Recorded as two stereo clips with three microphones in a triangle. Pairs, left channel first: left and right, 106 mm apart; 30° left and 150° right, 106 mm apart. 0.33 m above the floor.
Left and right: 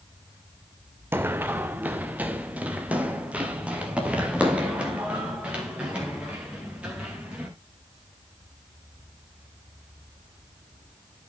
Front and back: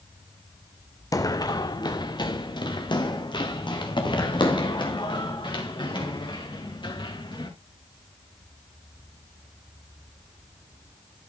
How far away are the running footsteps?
About 0.7 m.